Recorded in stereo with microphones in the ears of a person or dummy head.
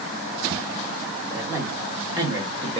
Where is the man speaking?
20° right (ahead or behind), 1.6 m; by 2.8 s 35° right (ahead or behind), 1.0 m.